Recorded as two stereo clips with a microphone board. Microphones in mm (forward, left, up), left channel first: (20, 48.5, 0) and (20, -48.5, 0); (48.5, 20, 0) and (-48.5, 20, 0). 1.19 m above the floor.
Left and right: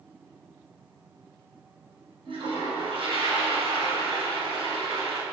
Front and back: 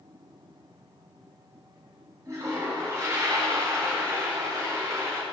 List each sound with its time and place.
2.2 s a toilet flushing: 120° right, 8 m